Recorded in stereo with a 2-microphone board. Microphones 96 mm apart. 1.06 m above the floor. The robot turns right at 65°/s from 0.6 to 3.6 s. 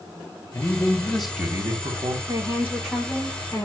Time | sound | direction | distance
0.5 | a man speaking | 140° left | 3 m
2.3 | a woman speaking | 40° right | 4.5 m